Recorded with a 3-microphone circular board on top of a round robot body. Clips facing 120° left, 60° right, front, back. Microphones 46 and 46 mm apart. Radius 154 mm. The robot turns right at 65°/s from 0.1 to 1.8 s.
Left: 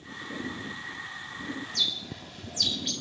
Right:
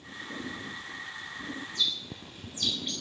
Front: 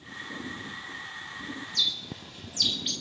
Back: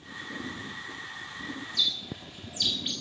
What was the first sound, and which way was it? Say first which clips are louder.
A bird: right 1 dB, even; 100° left.